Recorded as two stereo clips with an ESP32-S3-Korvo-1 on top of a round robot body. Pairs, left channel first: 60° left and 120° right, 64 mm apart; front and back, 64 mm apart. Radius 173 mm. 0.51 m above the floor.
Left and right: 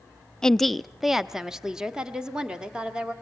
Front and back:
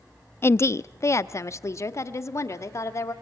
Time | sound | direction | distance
0.4 | a woman speaking | 15° right | 0.7 m